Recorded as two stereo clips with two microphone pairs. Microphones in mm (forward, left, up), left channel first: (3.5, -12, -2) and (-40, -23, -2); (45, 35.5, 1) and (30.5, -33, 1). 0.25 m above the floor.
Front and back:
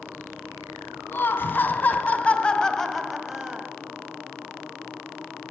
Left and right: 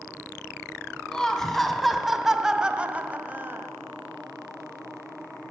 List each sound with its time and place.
1.1 s laughter: straight ahead, 2 m; by 3.7 s 120° right, 1.3 m